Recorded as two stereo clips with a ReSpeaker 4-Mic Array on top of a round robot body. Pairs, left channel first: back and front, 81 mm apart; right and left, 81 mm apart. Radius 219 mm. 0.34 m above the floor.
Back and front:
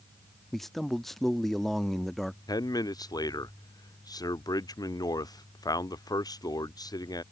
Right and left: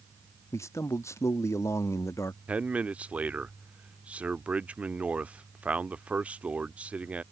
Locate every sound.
0.5 s a man speaking: 95° right
2.5 s a man speaking: 160° left